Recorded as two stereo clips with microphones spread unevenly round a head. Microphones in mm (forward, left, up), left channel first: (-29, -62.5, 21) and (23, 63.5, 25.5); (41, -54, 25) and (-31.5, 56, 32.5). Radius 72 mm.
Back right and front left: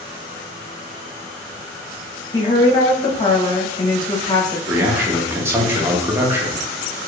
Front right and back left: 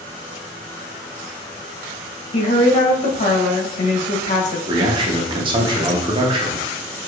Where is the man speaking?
130° left, 0.9 m.